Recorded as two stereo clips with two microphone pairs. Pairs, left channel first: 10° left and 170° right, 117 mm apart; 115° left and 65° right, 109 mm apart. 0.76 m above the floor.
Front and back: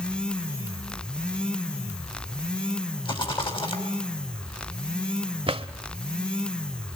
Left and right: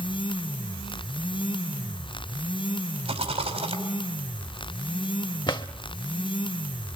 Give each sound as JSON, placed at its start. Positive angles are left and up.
{"t": 3.0, "sound": "a rattle", "azimuth_deg": -35, "distance_m": 4.5}
{"t": 5.5, "sound": "a drawer", "azimuth_deg": 155, "distance_m": 0.9}